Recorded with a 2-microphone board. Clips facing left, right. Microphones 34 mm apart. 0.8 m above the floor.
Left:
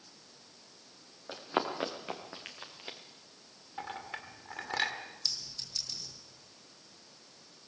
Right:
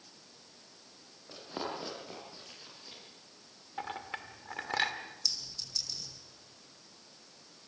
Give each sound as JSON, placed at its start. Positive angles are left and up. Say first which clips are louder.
{"t": 1.3, "sound": "running footsteps", "louder": "left 6 dB", "side_deg": 50, "distance_m": 4.0}
{"t": 3.8, "sound": "a clink", "louder": "right 1 dB", "side_deg": -5, "distance_m": 1.8}
{"t": 5.2, "sound": "a clink", "louder": "even", "side_deg": 25, "distance_m": 4.0}